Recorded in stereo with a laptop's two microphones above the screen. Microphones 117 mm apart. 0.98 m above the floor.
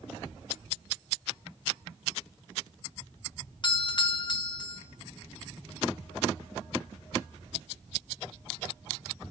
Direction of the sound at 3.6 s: 40° left (ahead or behind).